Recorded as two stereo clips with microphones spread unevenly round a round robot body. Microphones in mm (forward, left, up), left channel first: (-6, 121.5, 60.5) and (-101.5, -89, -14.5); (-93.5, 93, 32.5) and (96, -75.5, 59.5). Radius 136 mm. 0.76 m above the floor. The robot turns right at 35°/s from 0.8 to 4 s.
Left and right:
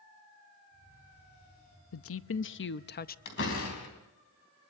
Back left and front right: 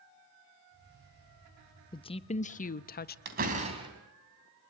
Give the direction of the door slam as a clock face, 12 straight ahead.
12 o'clock.